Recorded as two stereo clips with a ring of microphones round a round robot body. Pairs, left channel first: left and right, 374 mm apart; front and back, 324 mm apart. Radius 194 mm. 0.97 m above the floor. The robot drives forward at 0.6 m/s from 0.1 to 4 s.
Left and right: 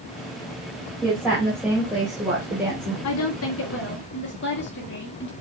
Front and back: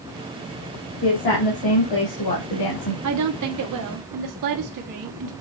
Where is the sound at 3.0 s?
140° left, 1.1 m; by 5.3 s 155° left, 1.6 m.